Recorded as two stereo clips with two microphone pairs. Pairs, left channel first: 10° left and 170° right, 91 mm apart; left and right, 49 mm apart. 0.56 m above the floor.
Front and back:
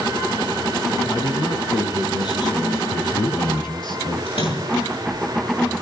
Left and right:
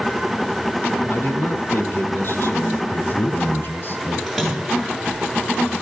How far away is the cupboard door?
No cupboard door in this recording.